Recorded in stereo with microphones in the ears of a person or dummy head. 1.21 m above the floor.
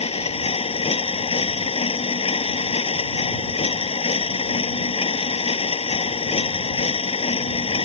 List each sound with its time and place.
0.0 s a machine running: 30° left (ahead or behind)